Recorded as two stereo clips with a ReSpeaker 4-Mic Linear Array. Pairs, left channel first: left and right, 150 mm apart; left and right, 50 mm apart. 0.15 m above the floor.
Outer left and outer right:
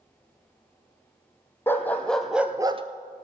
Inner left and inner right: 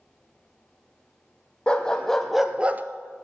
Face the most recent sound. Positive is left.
turn(degrees=-40)  # may be behind; listen again after turning